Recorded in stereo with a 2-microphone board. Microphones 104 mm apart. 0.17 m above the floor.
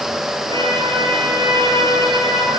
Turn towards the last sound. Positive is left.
turn(degrees=-55)  # may be behind; listen again after turning